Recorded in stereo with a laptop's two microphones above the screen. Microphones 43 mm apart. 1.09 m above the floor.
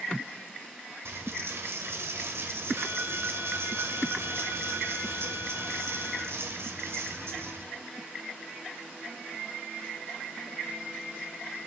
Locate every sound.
1.1 s a dropped coin: 70° right (ahead or behind), 1.8 m